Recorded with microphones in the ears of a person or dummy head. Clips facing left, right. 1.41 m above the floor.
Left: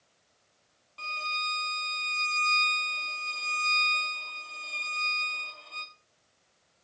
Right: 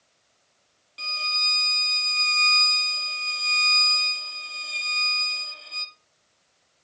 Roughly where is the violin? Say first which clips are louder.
Even; centre.